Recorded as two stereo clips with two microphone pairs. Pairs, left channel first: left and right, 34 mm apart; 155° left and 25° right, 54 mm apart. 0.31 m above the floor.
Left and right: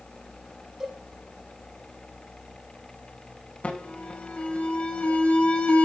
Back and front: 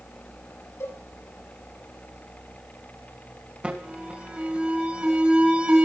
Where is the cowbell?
170° right, 10 m.